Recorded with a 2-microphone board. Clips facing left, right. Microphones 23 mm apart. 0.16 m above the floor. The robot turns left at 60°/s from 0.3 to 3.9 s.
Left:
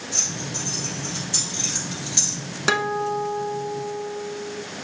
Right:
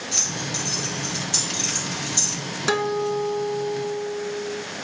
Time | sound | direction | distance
0.1 | keys jangling | 60° right (ahead or behind) | 2 m
2.7 | a guitar | 150° left | 0.7 m